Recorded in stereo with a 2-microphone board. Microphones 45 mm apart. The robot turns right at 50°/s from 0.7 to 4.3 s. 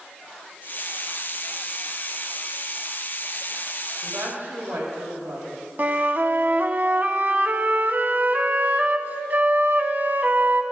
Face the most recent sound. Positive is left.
turn(degrees=-50)  # may be behind; listen again after turning